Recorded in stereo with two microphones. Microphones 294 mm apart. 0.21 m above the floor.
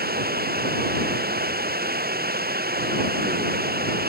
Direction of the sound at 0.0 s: 30° right (ahead or behind).